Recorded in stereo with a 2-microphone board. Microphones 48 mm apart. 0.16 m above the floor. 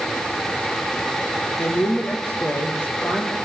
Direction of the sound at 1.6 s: 60° left (ahead or behind).